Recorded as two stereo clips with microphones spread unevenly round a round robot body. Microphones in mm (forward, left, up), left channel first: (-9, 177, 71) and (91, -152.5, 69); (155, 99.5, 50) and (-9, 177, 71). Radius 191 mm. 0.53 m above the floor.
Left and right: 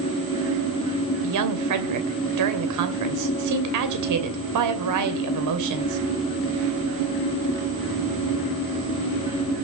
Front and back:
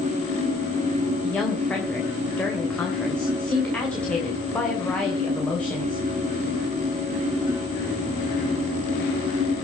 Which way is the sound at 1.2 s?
110° right.